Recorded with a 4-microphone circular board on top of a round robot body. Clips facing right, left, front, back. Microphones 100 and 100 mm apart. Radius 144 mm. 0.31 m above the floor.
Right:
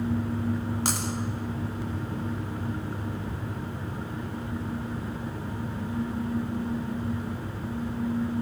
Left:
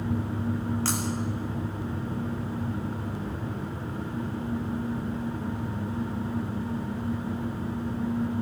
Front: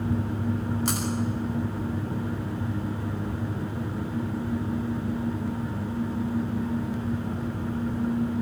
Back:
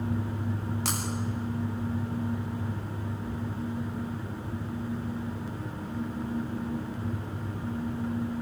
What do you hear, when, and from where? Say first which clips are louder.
0.8 s breaking glass: left 1 dB, front 3 dB; 165° right, 9.5 m